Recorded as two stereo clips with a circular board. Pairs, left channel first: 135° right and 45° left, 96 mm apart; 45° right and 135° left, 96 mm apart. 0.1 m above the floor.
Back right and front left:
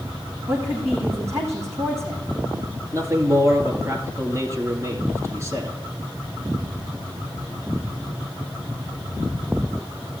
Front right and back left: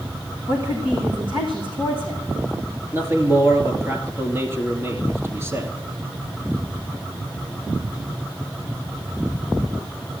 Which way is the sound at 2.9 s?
85° left.